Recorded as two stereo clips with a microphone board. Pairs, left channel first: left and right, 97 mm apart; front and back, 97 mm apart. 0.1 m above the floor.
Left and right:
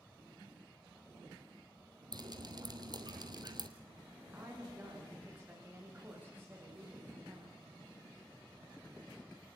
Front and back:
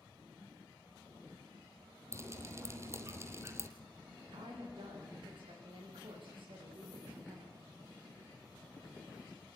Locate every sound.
2.1 s dripping: 125° right, 1.9 m
4.2 s a woman speaking: 160° right, 9.5 m